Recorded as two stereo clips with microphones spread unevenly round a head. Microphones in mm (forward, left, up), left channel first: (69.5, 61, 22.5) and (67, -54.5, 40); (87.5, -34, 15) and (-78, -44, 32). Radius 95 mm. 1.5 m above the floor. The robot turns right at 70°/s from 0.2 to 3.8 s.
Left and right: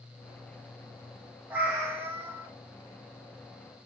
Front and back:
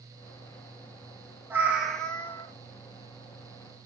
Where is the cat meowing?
130° right, 0.8 m; by 2.5 s 60° right, 0.8 m.